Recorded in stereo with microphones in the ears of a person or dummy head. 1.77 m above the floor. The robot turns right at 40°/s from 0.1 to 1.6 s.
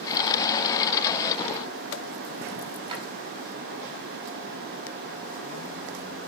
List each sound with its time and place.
2.9 s a drawer: 25° right (ahead or behind), 5 m